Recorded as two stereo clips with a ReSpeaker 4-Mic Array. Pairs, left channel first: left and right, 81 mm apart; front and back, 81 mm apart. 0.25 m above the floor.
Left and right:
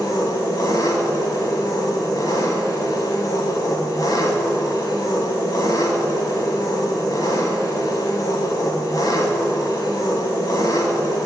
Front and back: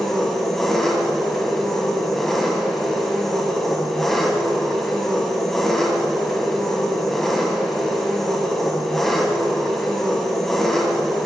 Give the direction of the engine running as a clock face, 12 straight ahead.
9 o'clock.